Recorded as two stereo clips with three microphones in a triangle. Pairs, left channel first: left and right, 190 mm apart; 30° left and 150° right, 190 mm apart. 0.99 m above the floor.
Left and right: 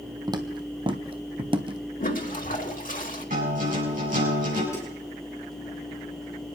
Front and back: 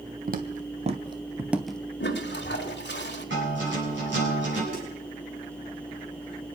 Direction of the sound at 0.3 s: 150° right.